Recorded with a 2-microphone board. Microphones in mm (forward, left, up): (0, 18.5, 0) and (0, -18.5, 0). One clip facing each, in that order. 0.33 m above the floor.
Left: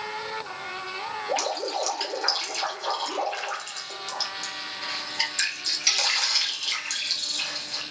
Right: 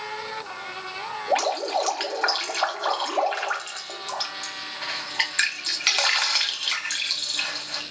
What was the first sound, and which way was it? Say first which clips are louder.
Dripping: right 5 dB; 45° right (ahead or behind).